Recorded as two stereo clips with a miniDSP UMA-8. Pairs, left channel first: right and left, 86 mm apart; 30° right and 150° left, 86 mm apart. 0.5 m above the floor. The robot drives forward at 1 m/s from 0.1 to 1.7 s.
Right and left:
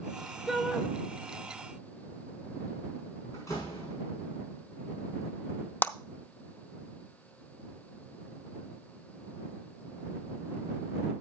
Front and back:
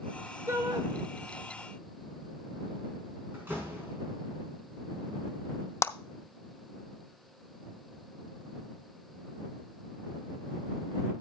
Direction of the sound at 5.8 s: 40° right.